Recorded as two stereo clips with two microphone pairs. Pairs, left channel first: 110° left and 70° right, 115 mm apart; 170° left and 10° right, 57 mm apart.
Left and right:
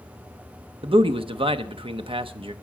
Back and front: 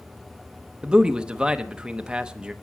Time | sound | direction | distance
0.8 | a man speaking | 80° right | 0.8 m